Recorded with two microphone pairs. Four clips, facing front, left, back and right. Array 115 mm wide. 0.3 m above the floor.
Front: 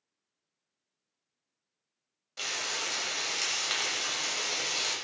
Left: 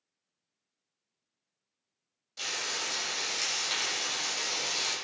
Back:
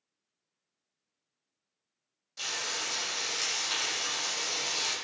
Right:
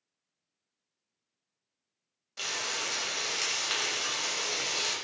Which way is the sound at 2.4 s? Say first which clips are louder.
Right 1 dB, front 1 dB; 20° right.